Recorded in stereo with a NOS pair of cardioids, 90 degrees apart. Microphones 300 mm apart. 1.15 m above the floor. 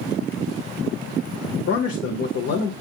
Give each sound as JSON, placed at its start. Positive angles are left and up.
{"t": 1.7, "sound": "a man speaking", "azimuth_deg": 55, "distance_m": 0.9}